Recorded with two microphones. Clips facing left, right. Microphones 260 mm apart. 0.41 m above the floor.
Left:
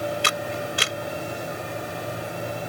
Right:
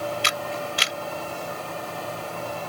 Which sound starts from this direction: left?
A camera shutter, at 0.2 s.